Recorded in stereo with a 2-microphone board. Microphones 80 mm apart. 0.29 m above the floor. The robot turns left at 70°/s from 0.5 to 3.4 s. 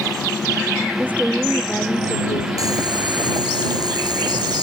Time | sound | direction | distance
1.0 | a woman speaking | 150° right | ?
2.6 | boiling | 55° right | ?